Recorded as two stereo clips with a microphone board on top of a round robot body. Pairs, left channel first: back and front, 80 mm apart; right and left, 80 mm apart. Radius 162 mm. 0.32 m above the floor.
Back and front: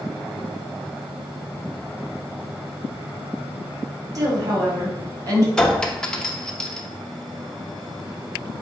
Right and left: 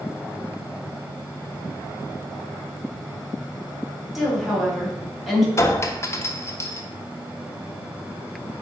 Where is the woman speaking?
Straight ahead, 1.8 m.